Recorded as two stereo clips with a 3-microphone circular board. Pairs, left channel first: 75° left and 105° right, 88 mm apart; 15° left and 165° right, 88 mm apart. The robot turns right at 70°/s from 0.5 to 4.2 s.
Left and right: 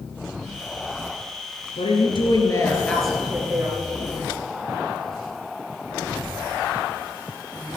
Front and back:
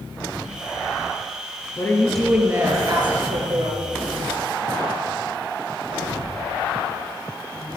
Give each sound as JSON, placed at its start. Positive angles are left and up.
{"t": 1.8, "sound": "a woman speaking", "azimuth_deg": 75, "distance_m": 3.5}